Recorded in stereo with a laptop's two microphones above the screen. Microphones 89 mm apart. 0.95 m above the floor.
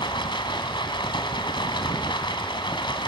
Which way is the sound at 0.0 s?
65° left (ahead or behind).